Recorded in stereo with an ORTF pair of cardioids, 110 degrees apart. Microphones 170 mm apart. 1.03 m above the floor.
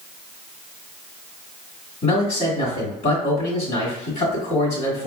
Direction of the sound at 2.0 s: 50° left.